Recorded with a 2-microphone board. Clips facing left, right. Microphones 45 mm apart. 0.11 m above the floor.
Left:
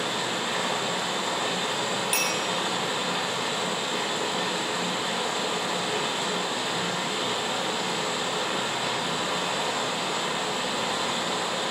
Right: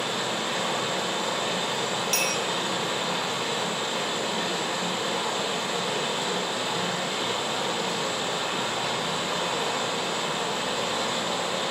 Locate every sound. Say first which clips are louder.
0.0 s running water: even; 10° left (ahead or behind), 3 m
2.1 s a clink: right 1 dB; 15° left (ahead or behind), 1.7 m